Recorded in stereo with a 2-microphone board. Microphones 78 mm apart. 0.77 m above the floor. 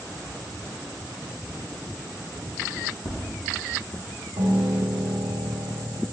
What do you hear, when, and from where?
3.0 s tapping: 75° left (ahead or behind), 3 m
4.4 s a piano: 85° right, 1.8 m